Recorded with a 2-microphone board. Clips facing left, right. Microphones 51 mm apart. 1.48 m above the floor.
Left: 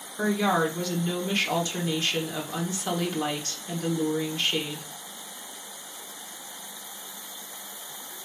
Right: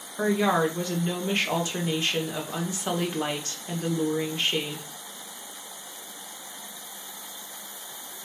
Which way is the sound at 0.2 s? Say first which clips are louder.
Right 1 dB; 20° right (ahead or behind).